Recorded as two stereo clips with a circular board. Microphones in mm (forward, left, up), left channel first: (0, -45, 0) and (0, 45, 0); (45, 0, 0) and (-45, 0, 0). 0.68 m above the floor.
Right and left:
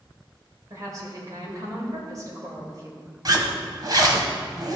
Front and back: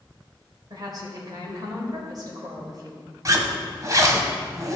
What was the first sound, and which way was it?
A woman speaking, 140° left.